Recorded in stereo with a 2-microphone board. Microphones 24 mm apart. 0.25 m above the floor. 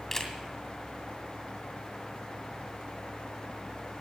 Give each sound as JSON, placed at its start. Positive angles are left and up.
{"t": 0.1, "sound": "a camera shutter", "side_deg": 15, "distance_m": 2.0}